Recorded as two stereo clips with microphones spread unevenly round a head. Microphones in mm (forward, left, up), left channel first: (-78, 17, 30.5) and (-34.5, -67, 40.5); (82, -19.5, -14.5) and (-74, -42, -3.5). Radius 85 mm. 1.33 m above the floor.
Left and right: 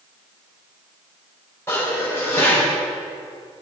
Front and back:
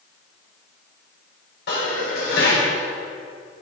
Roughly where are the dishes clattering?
Ahead left.